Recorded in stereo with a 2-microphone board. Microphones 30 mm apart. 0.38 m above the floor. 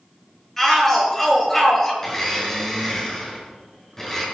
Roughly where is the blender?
Left.